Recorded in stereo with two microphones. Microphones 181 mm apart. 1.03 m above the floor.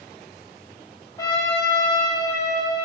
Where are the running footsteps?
No running footsteps in this recording.